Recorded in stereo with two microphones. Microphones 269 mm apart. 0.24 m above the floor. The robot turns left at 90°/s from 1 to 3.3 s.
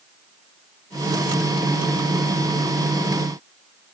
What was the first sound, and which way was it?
Only background noise.